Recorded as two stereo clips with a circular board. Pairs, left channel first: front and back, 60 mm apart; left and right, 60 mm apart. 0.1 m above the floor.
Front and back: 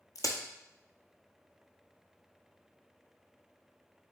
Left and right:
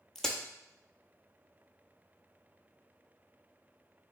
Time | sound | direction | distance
0.1 | a crack | 10° left | 1.1 m